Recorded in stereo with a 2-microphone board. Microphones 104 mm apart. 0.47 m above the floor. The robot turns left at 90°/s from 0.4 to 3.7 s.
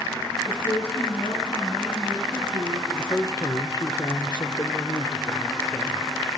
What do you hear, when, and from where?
0.5 s a woman speaking: 140° left, 5.5 m; by 2.8 s 75° right, 5.5 m
2.9 s a man speaking: 160° left, 1.3 m; by 6.2 s 90° left, 1.3 m